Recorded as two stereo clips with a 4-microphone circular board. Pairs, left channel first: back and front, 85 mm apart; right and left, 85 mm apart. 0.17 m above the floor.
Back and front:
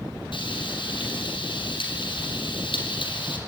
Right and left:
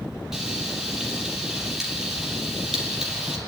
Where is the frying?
175° left, 4.5 m.